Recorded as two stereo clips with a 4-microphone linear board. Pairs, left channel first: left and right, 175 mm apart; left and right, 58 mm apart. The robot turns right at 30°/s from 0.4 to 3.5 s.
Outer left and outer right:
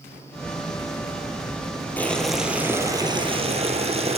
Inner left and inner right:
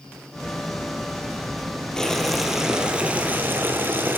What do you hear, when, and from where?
2.0 s boiling: 170° left, 3.5 m; by 4.2 s 145° right, 3.5 m